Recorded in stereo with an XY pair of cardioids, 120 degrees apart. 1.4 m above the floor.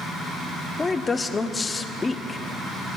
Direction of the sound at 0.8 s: 20° left.